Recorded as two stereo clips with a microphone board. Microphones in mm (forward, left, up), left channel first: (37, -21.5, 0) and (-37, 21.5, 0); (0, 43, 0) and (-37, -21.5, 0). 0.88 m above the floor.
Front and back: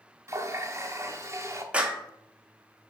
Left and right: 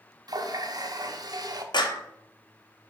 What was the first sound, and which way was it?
A running tap, 155° right.